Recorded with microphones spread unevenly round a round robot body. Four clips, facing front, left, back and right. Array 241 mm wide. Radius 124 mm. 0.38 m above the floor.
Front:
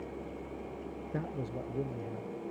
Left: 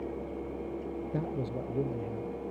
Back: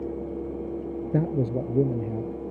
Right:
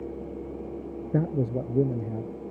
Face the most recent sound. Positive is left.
turn(degrees=-140)